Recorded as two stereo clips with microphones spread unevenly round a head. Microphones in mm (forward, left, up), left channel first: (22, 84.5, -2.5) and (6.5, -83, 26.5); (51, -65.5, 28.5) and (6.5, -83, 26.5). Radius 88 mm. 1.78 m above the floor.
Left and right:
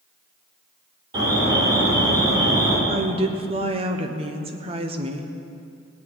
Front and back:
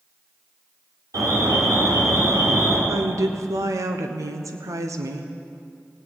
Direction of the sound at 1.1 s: 155° right.